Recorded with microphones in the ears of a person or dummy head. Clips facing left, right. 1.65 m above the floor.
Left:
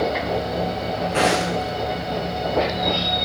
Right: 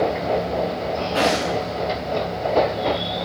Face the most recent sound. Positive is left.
turn(degrees=35)  # may be behind; listen again after turning